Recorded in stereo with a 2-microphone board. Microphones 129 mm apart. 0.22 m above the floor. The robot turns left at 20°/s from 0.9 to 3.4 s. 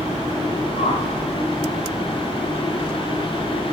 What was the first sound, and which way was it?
A whoosh, 55° left (ahead or behind).